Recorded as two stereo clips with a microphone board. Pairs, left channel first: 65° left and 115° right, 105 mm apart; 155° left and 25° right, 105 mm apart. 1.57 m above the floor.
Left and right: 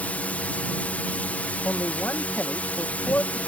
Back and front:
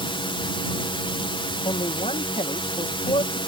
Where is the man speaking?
135° left.